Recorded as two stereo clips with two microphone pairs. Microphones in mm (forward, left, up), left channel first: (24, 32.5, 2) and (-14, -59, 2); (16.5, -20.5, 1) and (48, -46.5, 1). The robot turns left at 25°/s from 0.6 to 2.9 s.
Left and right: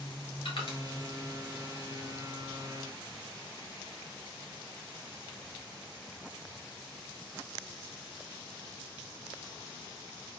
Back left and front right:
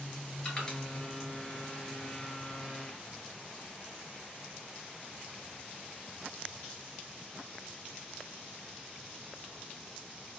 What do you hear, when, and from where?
0.5 s crushing: 75° left, 2.5 m